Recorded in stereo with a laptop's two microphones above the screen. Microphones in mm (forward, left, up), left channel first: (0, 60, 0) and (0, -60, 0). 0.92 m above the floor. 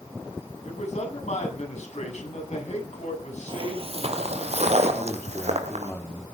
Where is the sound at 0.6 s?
75° left (ahead or behind), 7.5 m.